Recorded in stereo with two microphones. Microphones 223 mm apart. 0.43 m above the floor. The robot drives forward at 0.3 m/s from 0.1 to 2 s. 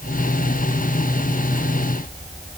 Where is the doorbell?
I don't hear a doorbell.